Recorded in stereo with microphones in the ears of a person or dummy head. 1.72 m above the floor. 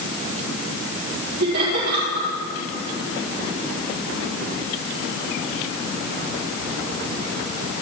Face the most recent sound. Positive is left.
turn(degrees=-50)  # may be behind; listen again after turning